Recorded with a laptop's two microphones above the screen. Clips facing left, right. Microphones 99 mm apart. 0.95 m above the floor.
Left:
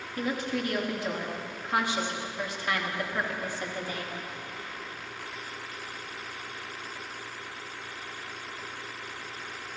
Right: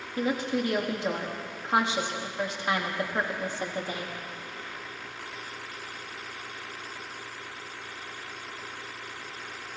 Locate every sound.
0.2 s a woman speaking: 25° right (ahead or behind), 1.4 m